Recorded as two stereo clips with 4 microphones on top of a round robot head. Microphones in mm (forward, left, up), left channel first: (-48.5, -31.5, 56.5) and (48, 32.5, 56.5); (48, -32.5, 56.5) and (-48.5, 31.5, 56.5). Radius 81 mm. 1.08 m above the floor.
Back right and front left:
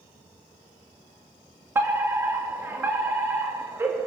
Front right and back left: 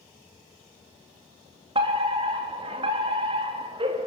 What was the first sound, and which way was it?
A fire alarm, 105° left.